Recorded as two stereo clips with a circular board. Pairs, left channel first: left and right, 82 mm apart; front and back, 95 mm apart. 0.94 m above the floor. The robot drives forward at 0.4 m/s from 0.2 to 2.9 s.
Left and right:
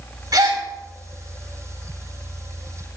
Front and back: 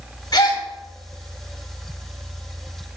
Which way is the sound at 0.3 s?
45° right.